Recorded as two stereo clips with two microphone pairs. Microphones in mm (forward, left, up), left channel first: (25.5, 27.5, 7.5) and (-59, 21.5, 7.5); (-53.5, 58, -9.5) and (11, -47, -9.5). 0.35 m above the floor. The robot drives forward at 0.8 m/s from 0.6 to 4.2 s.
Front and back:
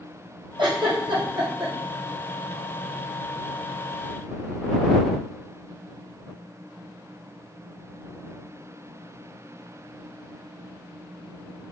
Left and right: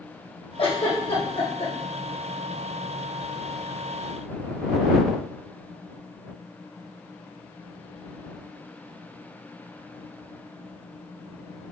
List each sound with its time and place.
0.6 s a giggle: 165° left, 4 m